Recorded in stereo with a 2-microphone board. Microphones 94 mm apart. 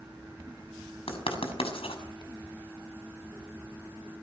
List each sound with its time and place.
1.1 s writing: 85° left, 6 m